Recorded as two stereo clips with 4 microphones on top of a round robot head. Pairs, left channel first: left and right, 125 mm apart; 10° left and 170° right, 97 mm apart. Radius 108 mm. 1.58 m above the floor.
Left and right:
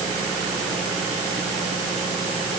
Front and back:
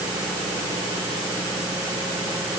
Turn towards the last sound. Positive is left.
No sound to turn to.